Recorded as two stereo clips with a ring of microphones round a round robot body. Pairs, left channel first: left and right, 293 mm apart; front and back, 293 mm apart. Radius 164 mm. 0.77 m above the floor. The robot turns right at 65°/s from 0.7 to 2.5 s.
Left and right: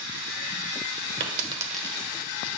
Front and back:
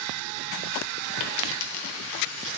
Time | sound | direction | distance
1.2 | a dropped coin | 35° right | 0.9 m